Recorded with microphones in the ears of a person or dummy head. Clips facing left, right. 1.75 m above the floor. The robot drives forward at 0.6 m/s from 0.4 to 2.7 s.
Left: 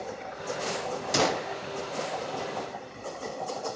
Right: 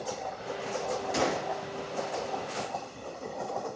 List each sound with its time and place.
1.1 s a gunshot: 60° left (ahead or behind), 0.9 m; by 1.5 s 65° left (ahead or behind), 0.8 m